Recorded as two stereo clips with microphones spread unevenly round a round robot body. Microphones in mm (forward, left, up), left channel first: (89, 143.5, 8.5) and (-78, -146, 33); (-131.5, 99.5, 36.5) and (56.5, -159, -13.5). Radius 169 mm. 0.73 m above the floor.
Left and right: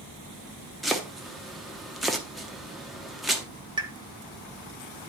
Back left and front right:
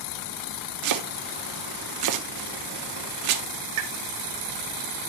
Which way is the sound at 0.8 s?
30° right.